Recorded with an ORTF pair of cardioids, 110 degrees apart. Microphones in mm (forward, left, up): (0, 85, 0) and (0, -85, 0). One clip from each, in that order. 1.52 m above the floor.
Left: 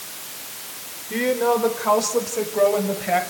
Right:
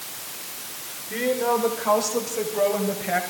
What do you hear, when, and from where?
1.1 s a woman speaking: 20° left, 5 m; by 3.2 s 15° left, 7 m